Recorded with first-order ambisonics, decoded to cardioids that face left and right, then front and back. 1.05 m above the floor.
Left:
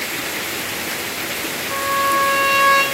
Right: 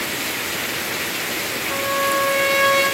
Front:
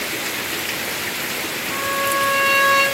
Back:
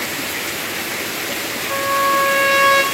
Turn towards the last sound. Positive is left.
turn(degrees=170)